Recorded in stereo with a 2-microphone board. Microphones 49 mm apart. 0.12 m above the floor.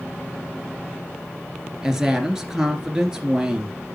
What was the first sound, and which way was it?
A woman speaking, 10° right (ahead or behind).